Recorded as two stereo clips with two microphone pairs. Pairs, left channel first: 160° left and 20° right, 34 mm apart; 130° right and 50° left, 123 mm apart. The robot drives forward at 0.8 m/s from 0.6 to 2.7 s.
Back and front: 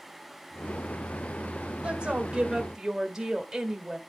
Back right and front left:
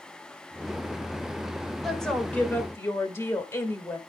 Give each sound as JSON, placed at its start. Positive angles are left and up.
{"t": 1.8, "sound": "a woman speaking", "azimuth_deg": -40, "distance_m": 1.6}